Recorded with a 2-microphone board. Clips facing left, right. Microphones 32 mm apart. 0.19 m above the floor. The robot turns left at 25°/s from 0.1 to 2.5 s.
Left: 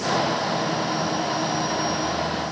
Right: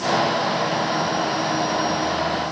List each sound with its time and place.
Only background noise.